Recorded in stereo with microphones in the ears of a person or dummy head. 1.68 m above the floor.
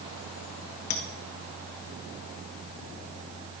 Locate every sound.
0.9 s a clink: 50° left (ahead or behind), 1.3 m